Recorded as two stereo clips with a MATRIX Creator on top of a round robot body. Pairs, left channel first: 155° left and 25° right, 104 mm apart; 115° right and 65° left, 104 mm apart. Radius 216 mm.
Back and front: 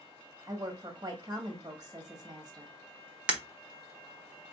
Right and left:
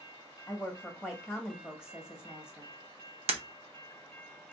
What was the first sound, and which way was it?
A woman speaking, 15° right.